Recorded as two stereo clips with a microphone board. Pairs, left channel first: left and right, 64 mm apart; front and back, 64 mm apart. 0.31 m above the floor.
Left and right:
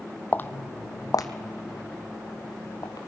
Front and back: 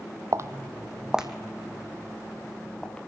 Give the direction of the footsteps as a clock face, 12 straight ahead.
7 o'clock.